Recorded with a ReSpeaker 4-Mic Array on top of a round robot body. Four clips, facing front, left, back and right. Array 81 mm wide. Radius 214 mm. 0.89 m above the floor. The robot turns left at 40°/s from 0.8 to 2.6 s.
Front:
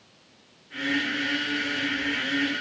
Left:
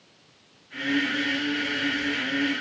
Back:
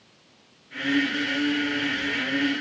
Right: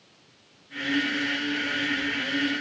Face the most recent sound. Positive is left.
No sound to turn to.